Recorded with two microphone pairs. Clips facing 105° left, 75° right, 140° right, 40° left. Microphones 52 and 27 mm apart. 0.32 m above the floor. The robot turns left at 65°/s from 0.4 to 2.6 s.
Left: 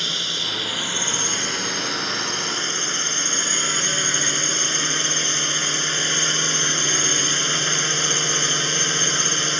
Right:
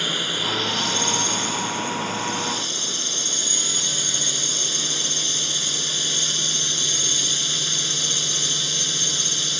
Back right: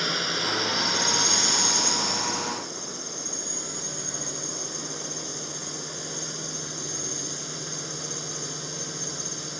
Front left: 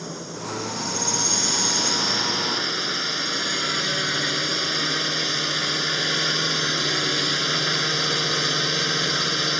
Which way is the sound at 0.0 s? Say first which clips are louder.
Right 2 dB, back right 7 dB; 155° right.